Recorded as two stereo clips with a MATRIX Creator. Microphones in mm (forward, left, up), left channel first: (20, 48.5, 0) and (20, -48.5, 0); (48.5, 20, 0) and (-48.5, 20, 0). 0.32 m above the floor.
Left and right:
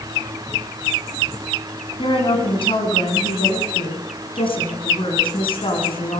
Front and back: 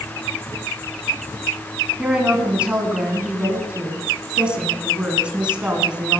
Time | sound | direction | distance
2.0 | a woman speaking | 100° left | 3 m